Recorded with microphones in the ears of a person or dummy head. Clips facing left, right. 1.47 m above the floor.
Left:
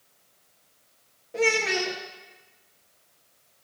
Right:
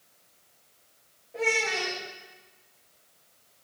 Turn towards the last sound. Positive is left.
turn(degrees=50)  # may be behind; listen again after turning